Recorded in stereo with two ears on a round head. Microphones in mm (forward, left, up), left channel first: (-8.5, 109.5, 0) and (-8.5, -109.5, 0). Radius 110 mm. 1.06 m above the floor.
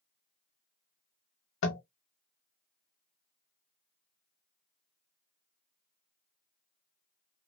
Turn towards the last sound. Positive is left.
turn(degrees=50)  # may be behind; listen again after turning